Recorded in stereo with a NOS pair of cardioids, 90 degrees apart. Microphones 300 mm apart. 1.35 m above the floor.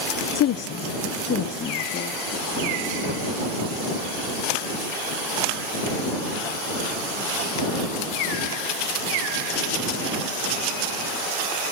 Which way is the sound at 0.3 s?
60° left.